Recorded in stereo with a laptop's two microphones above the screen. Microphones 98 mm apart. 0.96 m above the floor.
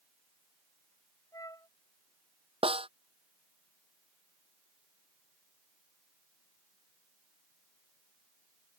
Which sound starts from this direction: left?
A flute, at 1.3 s.